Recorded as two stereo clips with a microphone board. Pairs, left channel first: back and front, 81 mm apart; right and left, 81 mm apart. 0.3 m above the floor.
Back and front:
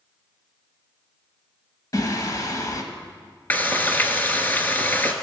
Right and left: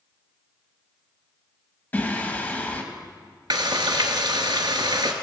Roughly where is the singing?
Behind right.